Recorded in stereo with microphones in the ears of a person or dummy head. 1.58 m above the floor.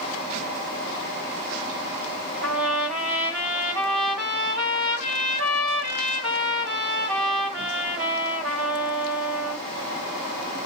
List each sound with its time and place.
2.4 s a trumpet: 65° right (ahead or behind), 3 m